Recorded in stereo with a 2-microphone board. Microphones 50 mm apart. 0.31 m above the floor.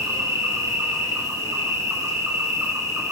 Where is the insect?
80° right, 0.9 m.